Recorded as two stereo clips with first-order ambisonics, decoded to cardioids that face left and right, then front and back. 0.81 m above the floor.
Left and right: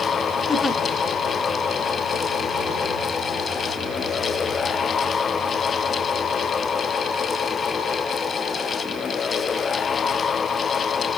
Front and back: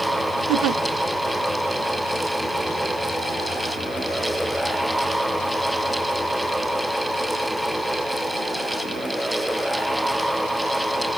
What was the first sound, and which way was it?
A giggle, straight behind.